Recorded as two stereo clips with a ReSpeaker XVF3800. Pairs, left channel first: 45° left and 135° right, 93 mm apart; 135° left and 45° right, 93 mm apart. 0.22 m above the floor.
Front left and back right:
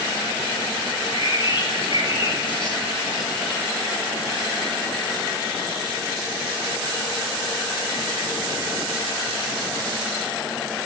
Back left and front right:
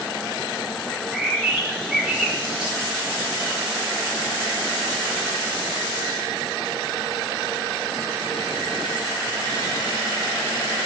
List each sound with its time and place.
0.9 s a bird: 40° left, 4 m